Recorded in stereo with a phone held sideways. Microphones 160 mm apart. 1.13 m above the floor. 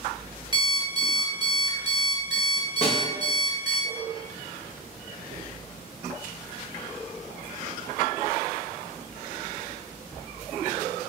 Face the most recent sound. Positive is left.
turn(degrees=40)  # may be behind; listen again after turning